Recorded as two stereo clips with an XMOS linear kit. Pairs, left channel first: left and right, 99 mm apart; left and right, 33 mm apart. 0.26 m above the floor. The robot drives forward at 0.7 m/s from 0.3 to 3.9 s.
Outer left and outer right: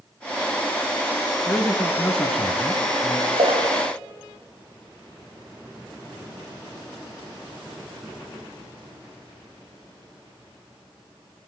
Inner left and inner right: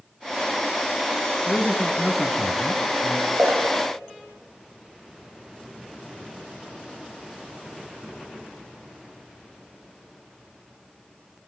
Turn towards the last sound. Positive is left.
turn(degrees=-60)  # may be behind; listen again after turning